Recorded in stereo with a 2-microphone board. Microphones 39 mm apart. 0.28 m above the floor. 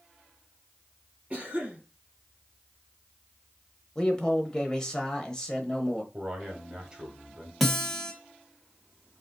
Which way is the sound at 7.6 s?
Centre (ahead or behind).